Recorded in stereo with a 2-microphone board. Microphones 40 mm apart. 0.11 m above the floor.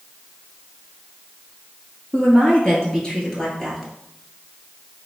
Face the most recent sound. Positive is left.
turn(degrees=5)  # may be behind; listen again after turning